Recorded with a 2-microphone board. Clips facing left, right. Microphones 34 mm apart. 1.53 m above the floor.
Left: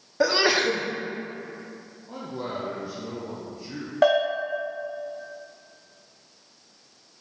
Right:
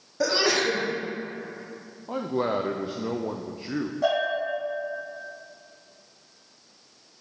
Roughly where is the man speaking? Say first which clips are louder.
Right 7 dB; right.